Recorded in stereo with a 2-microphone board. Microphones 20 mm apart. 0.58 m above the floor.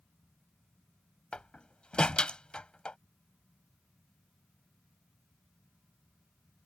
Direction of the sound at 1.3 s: 65° left (ahead or behind).